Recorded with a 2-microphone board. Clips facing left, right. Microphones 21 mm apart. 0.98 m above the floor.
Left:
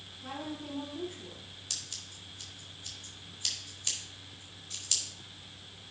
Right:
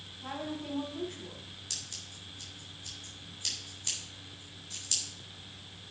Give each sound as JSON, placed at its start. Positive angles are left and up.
{"t": 0.2, "sound": "a woman speaking", "side_deg": -30, "distance_m": 5.0}
{"t": 1.7, "sound": "scissors", "side_deg": 10, "distance_m": 3.5}